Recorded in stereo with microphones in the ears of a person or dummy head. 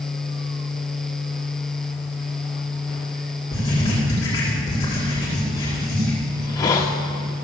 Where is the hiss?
20° left (ahead or behind), 1.3 m.